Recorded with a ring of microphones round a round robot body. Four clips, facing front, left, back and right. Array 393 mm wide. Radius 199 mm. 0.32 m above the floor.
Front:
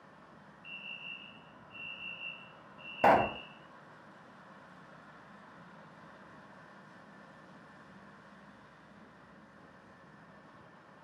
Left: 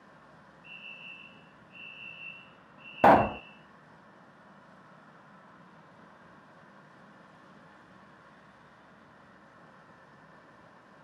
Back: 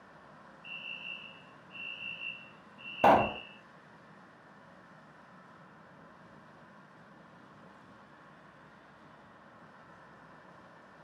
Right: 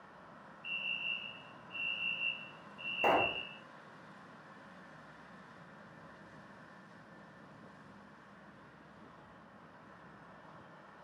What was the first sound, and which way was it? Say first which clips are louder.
A fire alarm: right 8 dB, back 2 dB; 145° right.